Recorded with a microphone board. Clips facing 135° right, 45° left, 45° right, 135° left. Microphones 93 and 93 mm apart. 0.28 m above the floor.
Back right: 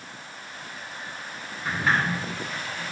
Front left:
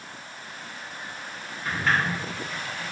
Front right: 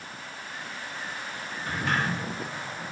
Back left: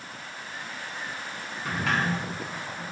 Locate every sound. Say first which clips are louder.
1.6 s a sliding door: back right 1 dB, back left 1 dB; 145° left, 6.5 m